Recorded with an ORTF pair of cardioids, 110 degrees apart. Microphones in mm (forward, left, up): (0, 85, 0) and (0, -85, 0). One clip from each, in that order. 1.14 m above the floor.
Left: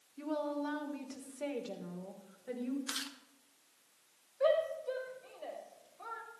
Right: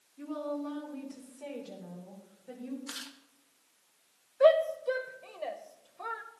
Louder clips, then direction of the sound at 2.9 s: Left 2 dB; 15° left.